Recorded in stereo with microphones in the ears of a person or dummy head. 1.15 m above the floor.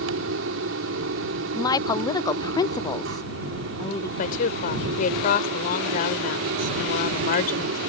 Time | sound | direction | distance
0.0 | a fan | 75° right (ahead or behind) | ?
1.6 | a woman speaking | 20° left (ahead or behind) | ?
4.2 | a woman speaking | 50° left (ahead or behind) | ?